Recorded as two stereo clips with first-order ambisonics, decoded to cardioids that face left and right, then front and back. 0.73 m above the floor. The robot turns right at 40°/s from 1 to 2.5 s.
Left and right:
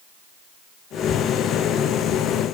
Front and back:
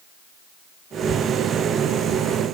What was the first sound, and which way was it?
Only background noise.